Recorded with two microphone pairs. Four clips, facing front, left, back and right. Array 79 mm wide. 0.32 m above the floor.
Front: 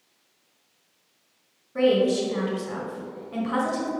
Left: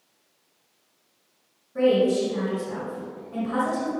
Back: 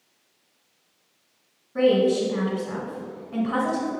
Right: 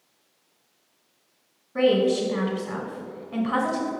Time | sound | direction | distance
1.8 | a woman speaking | 85° right | 1.3 m